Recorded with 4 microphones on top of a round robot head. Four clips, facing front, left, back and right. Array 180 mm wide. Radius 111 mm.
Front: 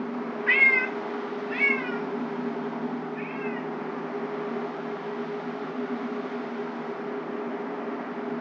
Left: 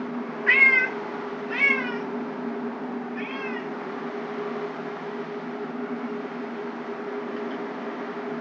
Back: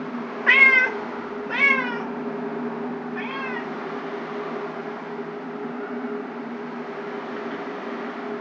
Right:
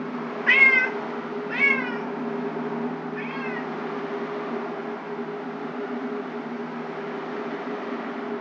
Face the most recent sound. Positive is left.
turn(degrees=170)